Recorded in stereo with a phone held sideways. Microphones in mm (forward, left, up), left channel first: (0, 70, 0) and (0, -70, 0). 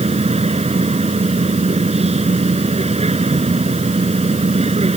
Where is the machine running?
50° right (ahead or behind).